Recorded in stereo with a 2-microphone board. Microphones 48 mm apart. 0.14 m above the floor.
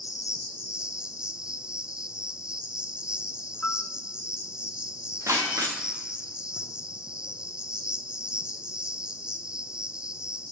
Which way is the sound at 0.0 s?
20° right (ahead or behind).